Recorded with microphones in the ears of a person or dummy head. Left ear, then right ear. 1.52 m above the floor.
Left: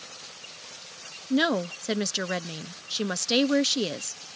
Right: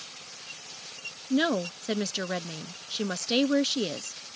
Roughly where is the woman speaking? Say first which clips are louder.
Left 2 dB; centre.